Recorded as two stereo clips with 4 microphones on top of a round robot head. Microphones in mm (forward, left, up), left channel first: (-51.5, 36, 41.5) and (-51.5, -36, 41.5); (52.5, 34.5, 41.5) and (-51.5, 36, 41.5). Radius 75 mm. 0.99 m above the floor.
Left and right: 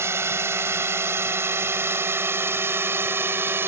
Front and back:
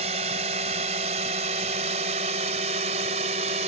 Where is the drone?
145° right.